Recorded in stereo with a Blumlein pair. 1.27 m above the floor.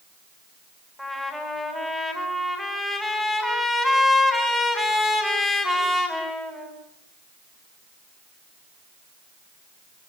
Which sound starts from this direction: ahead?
A trumpet, at 1.0 s.